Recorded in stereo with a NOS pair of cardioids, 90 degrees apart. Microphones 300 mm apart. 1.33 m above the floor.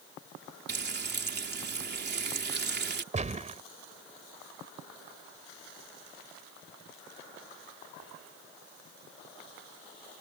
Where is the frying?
35° right.